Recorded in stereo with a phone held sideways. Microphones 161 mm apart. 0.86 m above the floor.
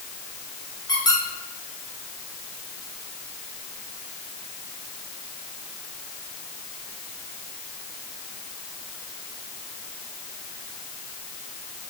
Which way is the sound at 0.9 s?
25° left (ahead or behind).